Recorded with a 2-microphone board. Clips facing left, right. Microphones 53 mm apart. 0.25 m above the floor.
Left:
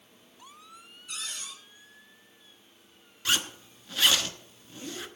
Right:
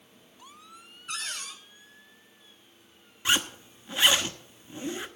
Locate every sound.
1.1 s a cupboard door: 50° right (ahead or behind), 3 m
3.2 s a zipper: 20° right (ahead or behind), 1.0 m